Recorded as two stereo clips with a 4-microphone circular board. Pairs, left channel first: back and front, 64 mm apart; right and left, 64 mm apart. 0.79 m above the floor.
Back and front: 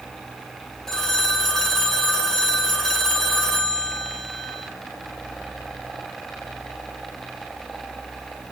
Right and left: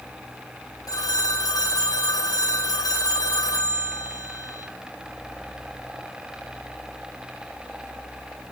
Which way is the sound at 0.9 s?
100° right.